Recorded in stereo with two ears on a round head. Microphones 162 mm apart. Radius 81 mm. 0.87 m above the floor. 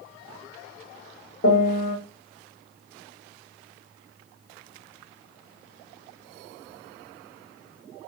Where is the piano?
45° left (ahead or behind), 1.2 m.